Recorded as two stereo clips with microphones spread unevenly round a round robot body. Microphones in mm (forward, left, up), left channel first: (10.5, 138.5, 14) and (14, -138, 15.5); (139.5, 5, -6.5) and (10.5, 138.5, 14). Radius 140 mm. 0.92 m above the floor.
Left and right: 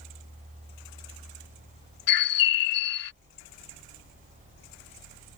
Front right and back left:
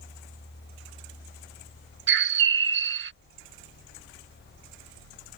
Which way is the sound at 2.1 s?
110° left.